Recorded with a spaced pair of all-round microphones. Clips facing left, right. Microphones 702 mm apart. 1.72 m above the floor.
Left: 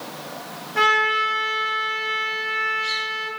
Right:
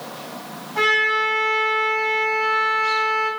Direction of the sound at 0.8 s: 80° left.